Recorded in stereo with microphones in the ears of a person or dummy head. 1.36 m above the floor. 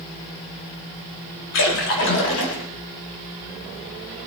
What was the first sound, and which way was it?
A splash, 80° left.